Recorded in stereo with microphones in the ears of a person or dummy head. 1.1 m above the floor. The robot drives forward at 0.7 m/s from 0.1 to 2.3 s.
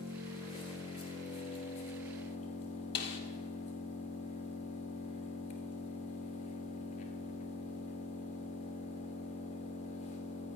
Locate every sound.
0.0 s an engine running: 30° left (ahead or behind), 4 m; by 10.6 s 45° left (ahead or behind), 3 m
3.0 s a snare drum: 65° left (ahead or behind), 1.8 m